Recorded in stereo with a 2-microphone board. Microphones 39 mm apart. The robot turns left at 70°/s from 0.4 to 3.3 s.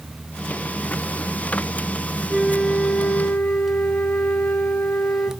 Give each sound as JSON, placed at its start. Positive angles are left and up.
{"t": 2.3, "sound": "a flute", "azimuth_deg": -175, "distance_m": 2.5}